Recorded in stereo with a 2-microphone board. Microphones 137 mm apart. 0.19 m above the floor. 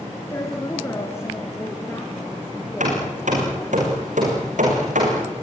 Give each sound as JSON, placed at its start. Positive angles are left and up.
{"t": 0.3, "sound": "a woman speaking", "side_deg": 25, "distance_m": 2.5}
{"t": 2.8, "sound": "hammering", "side_deg": -75, "distance_m": 8.0}